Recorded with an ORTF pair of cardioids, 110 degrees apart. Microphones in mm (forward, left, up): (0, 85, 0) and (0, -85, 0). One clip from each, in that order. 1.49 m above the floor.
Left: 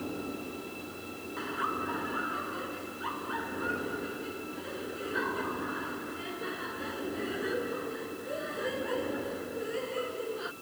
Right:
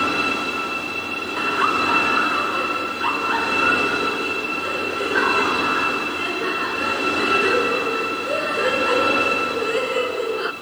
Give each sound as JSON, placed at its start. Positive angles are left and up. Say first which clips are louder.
{"t": 1.4, "sound": "laughter", "louder": "right 14 dB", "azimuth_deg": -65}